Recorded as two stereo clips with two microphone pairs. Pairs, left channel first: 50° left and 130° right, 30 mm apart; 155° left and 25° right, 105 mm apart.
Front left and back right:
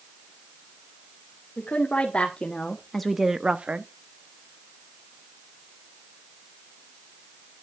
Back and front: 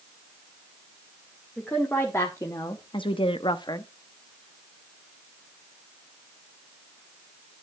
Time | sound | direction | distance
1.6 | a woman speaking | 80° left | 2 m